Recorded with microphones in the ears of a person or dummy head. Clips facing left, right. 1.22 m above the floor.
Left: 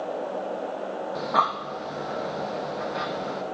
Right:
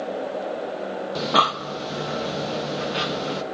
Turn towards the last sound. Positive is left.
turn(degrees=-40)  # may be behind; listen again after turning